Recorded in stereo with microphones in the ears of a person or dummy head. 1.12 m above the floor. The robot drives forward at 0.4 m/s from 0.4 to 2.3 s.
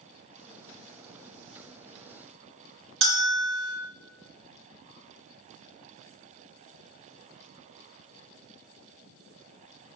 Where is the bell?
45° right (ahead or behind), 1.2 m.